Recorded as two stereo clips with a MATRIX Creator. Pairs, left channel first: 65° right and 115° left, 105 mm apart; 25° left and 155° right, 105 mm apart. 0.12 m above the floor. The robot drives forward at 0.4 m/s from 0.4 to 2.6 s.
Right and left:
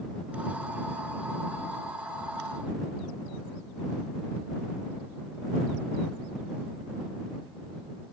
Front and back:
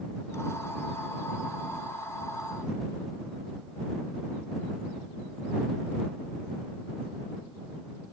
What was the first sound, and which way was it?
Only background noise.